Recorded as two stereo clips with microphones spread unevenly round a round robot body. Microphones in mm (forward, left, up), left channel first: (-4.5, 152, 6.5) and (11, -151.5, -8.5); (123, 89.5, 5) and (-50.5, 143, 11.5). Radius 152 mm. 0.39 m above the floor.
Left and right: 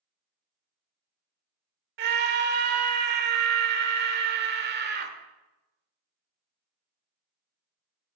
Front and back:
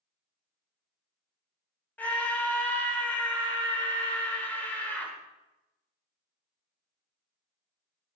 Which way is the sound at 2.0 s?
90° right.